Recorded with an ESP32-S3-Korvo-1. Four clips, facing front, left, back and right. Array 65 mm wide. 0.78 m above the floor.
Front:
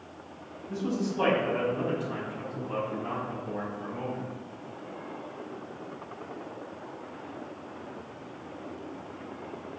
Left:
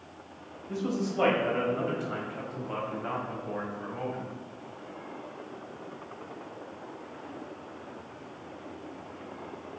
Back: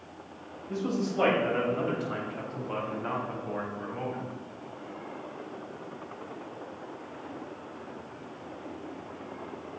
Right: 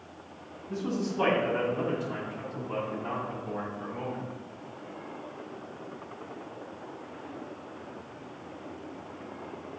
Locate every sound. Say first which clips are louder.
0.7 s a man speaking: left 1 dB, even; 135° left, 4 m; by 4.2 s 145° left, 5.5 m